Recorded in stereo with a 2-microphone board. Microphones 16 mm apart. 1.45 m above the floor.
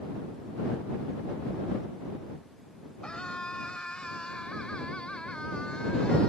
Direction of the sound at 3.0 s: 65° left (ahead or behind).